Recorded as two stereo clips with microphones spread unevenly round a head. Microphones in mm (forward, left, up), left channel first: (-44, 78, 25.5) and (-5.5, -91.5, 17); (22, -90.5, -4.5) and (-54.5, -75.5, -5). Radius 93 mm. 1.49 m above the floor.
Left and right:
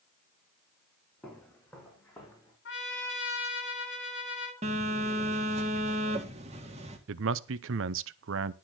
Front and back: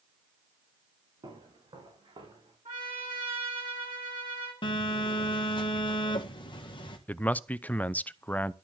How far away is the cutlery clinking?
I don't hear cutlery clinking.